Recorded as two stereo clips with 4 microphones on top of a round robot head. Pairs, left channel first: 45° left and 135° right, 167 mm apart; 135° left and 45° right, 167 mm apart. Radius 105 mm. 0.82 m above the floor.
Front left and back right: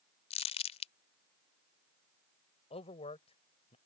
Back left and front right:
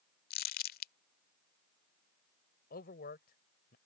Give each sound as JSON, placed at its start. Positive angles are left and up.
{"t": 0.3, "sound": "crumpling", "azimuth_deg": 100}
{"t": 2.7, "sound": "a man speaking", "azimuth_deg": 100}